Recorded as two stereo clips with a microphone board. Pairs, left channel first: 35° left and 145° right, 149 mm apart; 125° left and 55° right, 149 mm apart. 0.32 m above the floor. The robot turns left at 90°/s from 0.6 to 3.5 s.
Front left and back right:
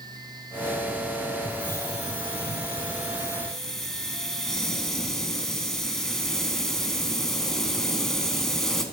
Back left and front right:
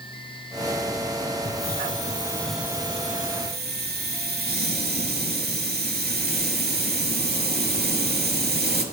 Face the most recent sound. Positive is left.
turn(degrees=-55)